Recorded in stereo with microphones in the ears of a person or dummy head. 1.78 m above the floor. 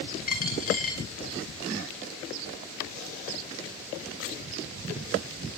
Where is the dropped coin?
45° left (ahead or behind), 4.5 m.